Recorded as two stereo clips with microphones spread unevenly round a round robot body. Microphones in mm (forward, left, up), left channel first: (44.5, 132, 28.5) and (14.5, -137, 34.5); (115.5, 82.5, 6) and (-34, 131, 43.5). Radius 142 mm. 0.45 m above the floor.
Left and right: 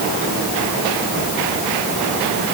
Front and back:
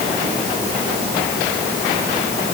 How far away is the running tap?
I don't hear a running tap.